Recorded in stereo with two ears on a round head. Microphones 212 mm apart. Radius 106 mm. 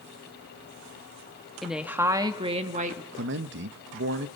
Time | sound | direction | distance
1.6 | a woman speaking | centre (ahead or behind) | 1.3 m
3.1 | a man speaking | 50° right (ahead or behind) | 0.9 m